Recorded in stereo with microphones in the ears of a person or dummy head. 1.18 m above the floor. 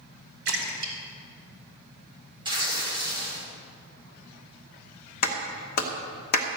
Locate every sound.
0.5 s a splash: 60° right (ahead or behind), 2.5 m
2.5 s tearing paper: 25° right (ahead or behind), 3 m
5.2 s a clap: 50° left (ahead or behind), 1.2 m